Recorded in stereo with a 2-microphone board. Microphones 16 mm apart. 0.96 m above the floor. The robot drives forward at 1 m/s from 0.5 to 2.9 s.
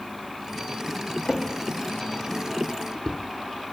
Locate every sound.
1.2 s a drawer: 55° left (ahead or behind), 0.9 m; by 3.2 s 35° left (ahead or behind), 1.3 m